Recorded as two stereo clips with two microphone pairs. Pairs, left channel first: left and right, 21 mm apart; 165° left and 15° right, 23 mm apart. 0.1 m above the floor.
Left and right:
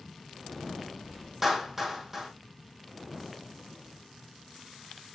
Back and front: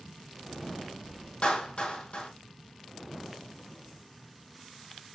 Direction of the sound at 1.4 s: 170° right.